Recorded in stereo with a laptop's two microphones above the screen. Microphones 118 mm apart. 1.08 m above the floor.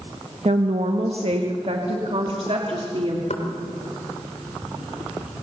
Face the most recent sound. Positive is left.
turn(degrees=75)  # may be behind; listen again after turning